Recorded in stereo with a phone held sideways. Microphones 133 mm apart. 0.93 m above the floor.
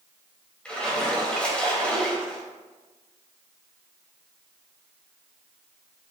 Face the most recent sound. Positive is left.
turn(degrees=10)  # may be behind; listen again after turning